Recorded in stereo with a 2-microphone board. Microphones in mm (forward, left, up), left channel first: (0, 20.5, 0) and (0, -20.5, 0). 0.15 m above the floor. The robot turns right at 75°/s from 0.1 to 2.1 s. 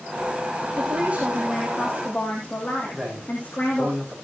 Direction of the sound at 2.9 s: 15° right (ahead or behind).